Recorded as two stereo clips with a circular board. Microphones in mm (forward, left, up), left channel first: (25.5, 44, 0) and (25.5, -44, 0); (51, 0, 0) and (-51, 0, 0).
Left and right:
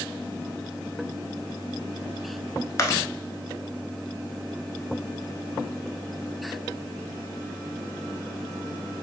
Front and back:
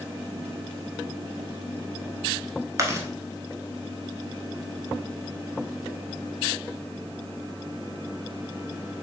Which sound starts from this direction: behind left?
Chewing, at 2.8 s.